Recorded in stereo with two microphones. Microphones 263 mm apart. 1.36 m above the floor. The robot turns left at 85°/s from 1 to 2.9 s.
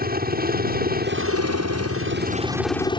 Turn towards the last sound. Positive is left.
turn(degrees=160)